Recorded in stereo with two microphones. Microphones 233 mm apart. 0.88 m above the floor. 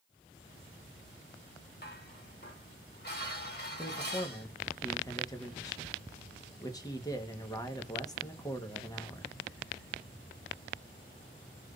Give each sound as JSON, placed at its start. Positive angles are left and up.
{"t": 1.8, "sound": "dishes clattering", "side_deg": 45, "distance_m": 2.0}
{"t": 3.8, "sound": "a man speaking", "side_deg": 15, "distance_m": 1.1}